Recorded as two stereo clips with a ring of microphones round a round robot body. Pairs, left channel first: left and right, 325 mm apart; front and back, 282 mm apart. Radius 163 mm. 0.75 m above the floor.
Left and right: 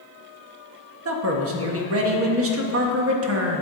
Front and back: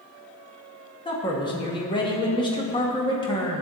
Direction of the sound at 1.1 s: 70° right.